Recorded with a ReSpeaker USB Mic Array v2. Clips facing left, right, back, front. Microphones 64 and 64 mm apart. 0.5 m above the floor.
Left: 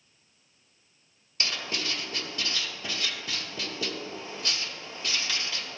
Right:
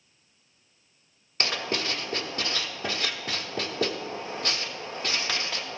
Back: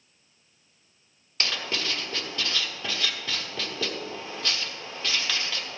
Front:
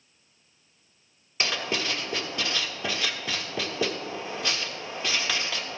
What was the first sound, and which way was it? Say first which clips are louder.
Writing: right 4 dB, front 2 dB; 75° right.